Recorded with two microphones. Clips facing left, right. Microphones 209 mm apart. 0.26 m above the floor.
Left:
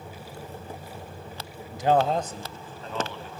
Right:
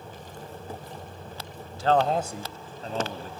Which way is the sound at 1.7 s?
25° left (ahead or behind).